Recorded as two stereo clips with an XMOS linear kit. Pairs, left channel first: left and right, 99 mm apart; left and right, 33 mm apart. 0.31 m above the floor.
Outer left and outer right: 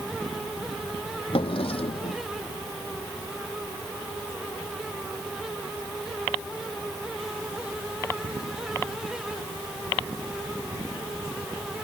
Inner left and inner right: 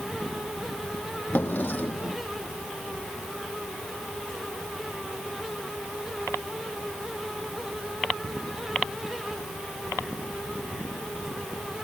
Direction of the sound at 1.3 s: 70° left (ahead or behind).